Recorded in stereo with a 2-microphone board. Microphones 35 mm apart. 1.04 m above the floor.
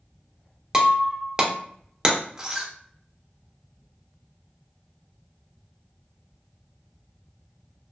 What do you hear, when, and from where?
0.7 s breaking glass: 15° right (ahead or behind), 0.5 m